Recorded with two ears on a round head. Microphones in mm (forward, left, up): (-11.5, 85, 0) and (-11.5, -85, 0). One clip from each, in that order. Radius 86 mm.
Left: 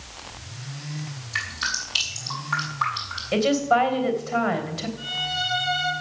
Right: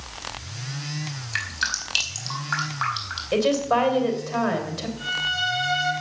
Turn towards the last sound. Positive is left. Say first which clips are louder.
# right 2 dB
turn(degrees=-55)  # may be behind; listen again after turning